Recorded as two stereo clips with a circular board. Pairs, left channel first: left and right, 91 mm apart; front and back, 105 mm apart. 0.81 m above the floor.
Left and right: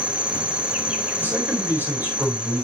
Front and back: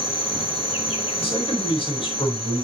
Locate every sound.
0.0 s an insect: 10° right, 1.9 m
1.2 s a man speaking: 25° right, 4 m